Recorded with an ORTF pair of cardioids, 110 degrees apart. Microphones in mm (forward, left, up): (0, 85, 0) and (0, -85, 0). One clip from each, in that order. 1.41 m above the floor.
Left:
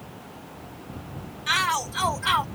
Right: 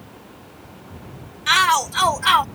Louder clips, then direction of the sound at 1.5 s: Right 7 dB; 35° right.